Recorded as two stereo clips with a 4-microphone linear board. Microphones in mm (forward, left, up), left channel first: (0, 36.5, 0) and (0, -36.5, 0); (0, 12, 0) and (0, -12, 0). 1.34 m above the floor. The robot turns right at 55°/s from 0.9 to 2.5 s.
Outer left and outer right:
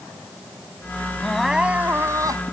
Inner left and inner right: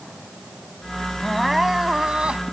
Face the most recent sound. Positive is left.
turn(degrees=-120)